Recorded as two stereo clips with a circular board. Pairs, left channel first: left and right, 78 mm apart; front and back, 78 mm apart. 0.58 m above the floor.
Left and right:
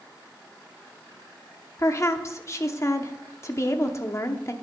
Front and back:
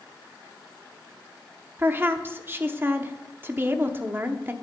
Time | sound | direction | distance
1.8 | a woman speaking | 125° left | 0.8 m